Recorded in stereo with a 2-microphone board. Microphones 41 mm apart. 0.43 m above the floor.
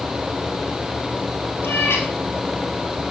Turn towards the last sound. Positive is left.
turn(degrees=80)